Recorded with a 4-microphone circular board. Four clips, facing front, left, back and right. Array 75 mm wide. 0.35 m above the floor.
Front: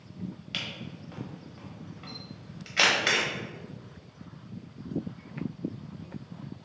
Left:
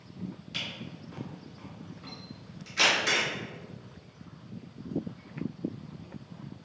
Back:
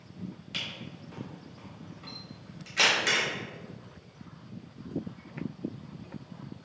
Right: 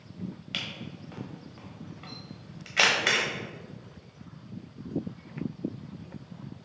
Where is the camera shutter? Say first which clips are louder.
Right 1 dB, front 2 dB; 65° right, 1.2 m.